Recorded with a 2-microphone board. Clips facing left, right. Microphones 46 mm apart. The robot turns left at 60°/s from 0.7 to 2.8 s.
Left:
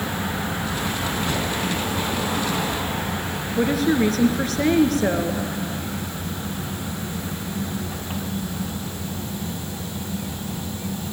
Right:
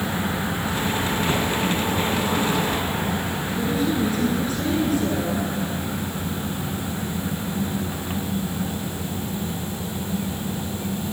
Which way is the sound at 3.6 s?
65° left (ahead or behind).